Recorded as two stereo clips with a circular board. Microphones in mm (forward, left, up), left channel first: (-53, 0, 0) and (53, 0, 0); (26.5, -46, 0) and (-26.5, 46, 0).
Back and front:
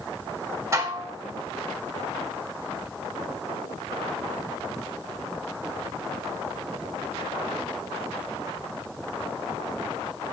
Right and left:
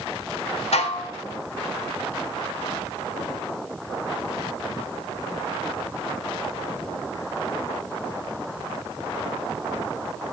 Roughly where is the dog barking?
No dog barking in this recording.